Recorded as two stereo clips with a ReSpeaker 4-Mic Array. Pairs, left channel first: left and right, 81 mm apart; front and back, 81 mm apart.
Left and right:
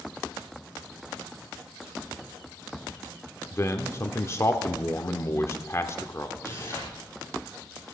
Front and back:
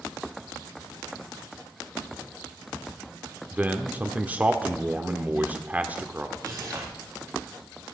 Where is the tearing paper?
145° left, 5.5 m.